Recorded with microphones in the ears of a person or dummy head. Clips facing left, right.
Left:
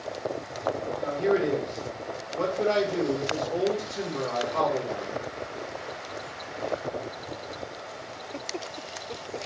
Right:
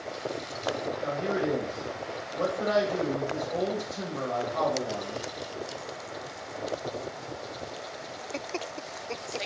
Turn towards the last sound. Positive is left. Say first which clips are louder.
# left 6 dB
turn(degrees=70)  # may be behind; listen again after turning